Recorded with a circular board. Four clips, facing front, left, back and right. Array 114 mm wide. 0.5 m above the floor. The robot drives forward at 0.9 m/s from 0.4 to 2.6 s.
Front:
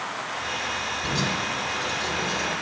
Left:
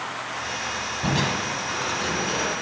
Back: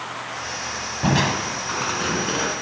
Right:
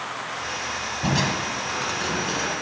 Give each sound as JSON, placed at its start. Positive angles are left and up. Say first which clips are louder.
{"t": 1.0, "sound": "crushing", "louder": "right 1 dB, back 9 dB", "azimuth_deg": -170, "distance_m": 1.1}